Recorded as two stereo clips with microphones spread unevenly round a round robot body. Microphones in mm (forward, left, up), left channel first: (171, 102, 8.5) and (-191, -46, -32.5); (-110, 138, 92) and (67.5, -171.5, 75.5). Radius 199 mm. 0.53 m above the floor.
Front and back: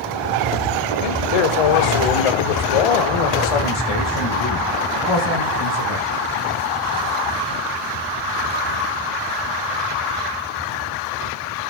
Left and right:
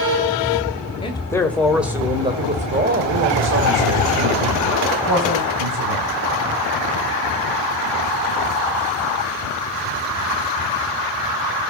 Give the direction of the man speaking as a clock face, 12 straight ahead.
11 o'clock.